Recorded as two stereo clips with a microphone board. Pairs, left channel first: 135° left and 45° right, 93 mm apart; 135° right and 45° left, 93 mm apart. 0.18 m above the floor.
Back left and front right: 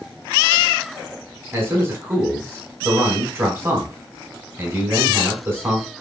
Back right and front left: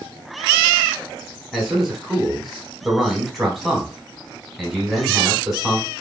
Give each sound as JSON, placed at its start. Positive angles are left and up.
{"t": 1.5, "sound": "a man speaking", "azimuth_deg": -40, "distance_m": 1.1}